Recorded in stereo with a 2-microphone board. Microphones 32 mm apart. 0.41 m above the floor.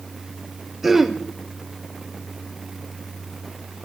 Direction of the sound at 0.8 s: 10° right (ahead or behind).